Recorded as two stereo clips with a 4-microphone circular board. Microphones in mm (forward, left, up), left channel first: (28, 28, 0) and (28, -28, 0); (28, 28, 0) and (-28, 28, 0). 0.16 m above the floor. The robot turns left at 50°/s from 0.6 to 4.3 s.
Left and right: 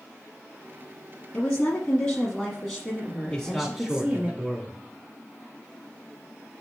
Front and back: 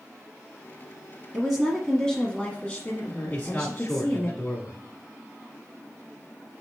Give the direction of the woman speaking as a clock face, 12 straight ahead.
9 o'clock.